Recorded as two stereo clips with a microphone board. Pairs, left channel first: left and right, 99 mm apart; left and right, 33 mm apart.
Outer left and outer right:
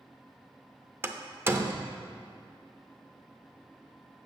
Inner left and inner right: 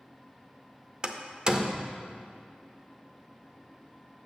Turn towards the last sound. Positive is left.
turn(degrees=-25)  # may be behind; listen again after turning